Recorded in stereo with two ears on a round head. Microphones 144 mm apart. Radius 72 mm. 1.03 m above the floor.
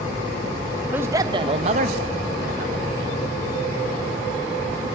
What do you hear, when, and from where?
0.9 s a man speaking: 10° right (ahead or behind), 1.4 m; by 3.2 s 75° right (ahead or behind), 2.5 m